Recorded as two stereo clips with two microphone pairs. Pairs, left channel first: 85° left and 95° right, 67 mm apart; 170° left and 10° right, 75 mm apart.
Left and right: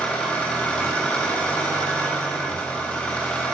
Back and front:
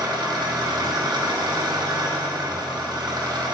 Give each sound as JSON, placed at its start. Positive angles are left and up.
{"t": 0.0, "sound": "an engine running", "azimuth_deg": 10, "distance_m": 0.9}